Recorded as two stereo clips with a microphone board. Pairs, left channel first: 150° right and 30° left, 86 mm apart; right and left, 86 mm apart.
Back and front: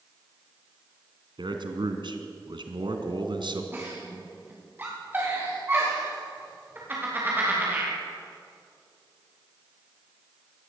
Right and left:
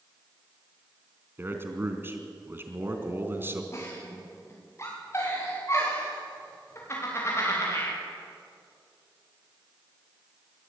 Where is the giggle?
35° right, 9.5 m.